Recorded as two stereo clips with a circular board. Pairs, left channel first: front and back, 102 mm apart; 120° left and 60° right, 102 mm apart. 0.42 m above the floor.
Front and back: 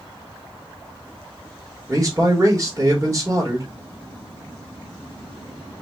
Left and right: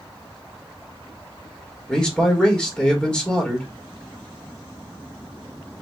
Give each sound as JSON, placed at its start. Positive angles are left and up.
{"t": 1.9, "sound": "a man speaking", "azimuth_deg": -170, "distance_m": 1.4}